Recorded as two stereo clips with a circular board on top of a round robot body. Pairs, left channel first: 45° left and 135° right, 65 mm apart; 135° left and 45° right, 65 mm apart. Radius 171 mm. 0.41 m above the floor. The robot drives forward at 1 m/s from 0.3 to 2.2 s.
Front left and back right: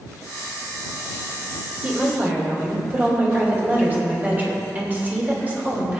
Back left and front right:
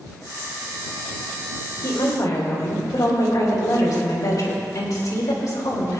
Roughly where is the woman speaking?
Behind.